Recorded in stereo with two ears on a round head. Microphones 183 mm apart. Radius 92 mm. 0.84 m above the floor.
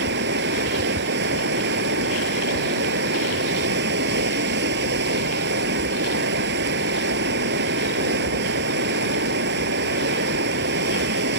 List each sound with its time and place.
0.0 s running water: 60° right (ahead or behind)